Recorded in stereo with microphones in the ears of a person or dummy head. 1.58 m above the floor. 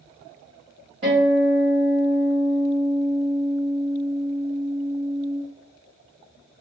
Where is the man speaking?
I don't hear a man speaking.